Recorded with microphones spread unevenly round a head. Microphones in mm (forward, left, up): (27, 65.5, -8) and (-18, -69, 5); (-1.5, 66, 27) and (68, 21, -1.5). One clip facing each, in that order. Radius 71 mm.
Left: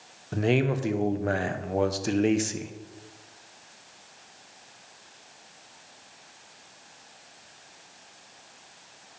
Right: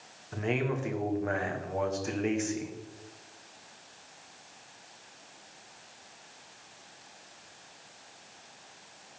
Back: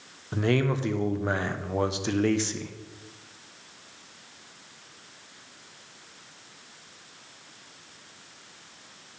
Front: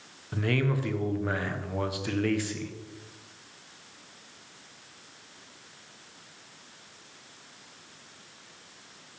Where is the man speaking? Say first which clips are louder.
Left 6 dB, back 3 dB; 115° left, 0.8 m.